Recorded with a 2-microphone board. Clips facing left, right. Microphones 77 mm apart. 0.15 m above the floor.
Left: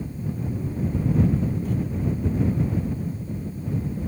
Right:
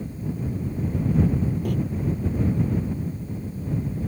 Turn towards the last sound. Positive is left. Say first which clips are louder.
# right 1 dB
turn(degrees=-70)  # may be behind; listen again after turning